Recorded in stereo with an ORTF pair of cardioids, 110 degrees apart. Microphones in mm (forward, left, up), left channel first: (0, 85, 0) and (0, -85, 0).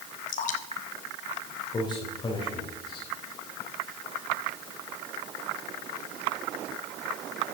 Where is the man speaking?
25° left, 4 m.